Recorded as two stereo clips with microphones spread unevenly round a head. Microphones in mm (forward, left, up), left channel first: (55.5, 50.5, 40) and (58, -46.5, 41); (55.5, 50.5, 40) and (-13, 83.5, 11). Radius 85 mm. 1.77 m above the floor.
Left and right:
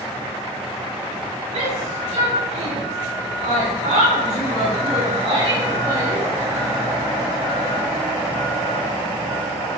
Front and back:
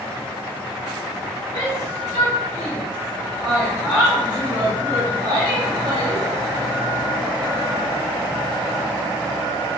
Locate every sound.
1.5 s a shout: 95° right, 5.5 m; by 6.2 s 155° right, 4.5 m